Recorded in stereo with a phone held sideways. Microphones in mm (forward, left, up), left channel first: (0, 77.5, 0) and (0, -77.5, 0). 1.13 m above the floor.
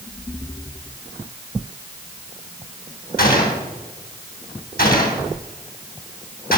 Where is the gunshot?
75° left (ahead or behind), 3 m.